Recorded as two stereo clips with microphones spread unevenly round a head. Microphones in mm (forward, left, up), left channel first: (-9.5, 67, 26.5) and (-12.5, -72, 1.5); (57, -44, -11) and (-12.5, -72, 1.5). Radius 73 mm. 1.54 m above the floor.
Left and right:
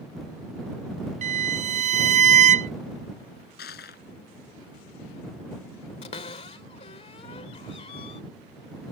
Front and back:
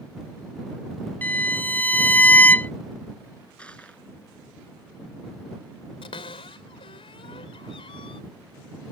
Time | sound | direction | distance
1.2 | a violin | 45° right | ?
3.6 | crushing | 105° left | ?
6.0 | a cupboard door | 40° left | ?